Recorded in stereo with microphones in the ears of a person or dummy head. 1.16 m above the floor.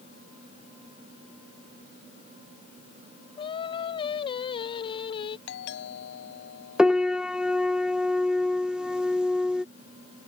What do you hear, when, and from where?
3.4 s singing: 25° left (ahead or behind)
5.5 s a doorbell: 60° left (ahead or behind)
6.8 s a piano: centre (ahead or behind)